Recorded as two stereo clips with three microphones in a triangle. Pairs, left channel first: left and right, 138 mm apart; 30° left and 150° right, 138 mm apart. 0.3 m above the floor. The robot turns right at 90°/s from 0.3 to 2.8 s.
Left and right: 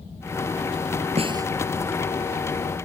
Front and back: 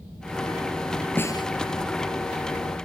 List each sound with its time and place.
1.2 s a snare drum: 45° right; by 1.5 s 20° right